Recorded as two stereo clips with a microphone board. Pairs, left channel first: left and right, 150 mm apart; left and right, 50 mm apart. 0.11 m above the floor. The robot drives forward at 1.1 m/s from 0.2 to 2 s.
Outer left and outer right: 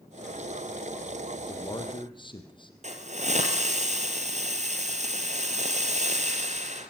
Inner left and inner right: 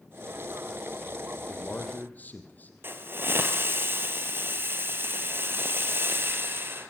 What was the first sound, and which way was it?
A man speaking, 30° left (ahead or behind).